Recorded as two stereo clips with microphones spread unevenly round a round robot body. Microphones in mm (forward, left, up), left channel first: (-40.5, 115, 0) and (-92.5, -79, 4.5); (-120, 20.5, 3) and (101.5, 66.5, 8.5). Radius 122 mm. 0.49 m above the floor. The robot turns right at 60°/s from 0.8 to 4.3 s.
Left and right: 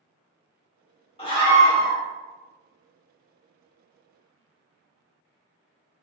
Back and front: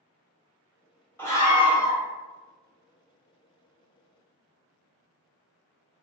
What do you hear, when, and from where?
1.2 s a scream: 115° left, 1.3 m; by 2.0 s 165° left, 1.3 m